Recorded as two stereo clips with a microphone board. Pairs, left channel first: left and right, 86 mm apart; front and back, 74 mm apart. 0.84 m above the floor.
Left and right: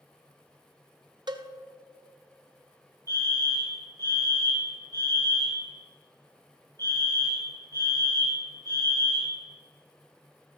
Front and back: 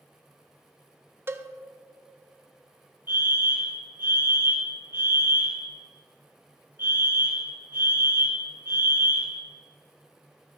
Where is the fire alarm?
125° right, 2.5 m.